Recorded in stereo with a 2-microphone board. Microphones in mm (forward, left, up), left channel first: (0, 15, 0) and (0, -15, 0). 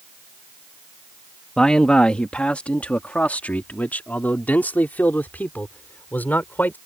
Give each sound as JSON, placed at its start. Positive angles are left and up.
{"t": 1.6, "sound": "a man speaking", "side_deg": 20}